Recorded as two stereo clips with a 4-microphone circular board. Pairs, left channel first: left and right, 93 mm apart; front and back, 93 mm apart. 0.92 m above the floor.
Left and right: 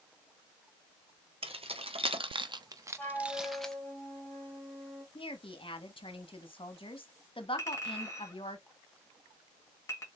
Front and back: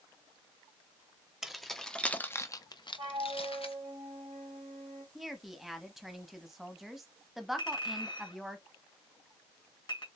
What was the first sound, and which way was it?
Keys jangling, 95° right.